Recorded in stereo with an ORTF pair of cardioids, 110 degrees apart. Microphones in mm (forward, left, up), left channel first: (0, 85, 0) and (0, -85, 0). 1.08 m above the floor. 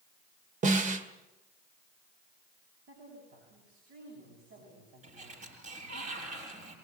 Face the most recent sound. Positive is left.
turn(degrees=-45)